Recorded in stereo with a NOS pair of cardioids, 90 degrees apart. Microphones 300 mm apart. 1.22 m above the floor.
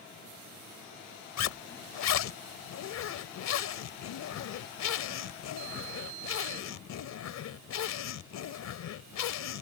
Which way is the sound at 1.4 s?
65° left.